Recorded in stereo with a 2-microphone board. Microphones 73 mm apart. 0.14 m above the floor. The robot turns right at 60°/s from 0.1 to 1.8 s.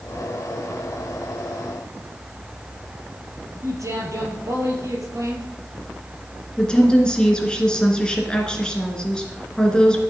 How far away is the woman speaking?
About 2 m.